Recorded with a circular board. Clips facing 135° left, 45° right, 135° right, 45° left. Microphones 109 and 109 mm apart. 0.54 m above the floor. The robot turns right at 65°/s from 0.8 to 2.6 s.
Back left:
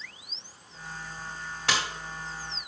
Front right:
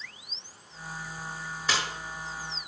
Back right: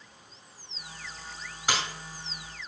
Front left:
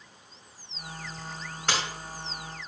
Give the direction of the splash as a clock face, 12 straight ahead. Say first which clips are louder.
Back left 1 dB, even; 7 o'clock.